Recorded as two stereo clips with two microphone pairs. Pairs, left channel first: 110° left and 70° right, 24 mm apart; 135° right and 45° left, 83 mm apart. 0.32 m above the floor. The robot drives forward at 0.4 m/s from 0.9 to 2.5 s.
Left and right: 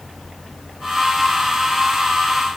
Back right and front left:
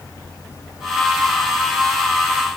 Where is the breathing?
I don't hear breathing.